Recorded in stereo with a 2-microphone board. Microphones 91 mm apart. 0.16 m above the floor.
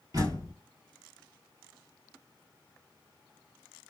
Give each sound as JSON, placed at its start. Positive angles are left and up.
{"t": 0.1, "sound": "a door slam", "side_deg": -50, "distance_m": 2.5}